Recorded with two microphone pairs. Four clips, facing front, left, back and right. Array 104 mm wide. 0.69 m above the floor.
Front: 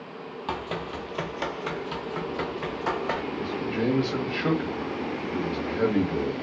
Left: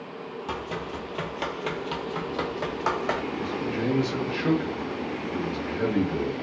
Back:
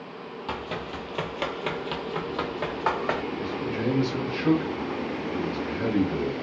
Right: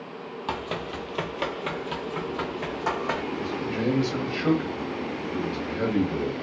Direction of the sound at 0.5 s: 65° right.